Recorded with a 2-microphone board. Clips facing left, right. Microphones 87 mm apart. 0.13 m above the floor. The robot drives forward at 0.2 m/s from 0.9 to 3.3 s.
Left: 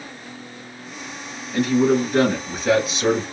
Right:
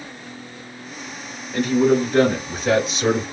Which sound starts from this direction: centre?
A man speaking, at 1.5 s.